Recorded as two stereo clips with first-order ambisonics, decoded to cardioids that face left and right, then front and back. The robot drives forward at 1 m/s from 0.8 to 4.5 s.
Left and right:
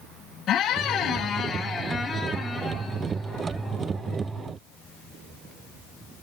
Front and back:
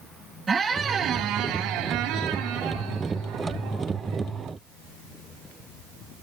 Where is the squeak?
115° left, 0.8 m; by 4.3 s 175° left, 3.5 m.